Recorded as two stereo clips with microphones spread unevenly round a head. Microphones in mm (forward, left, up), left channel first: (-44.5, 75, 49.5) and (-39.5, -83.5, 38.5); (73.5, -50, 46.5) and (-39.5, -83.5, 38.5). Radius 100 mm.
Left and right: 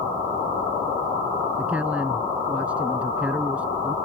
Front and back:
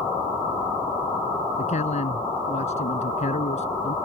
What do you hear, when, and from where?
1.6 s a man speaking: 5° right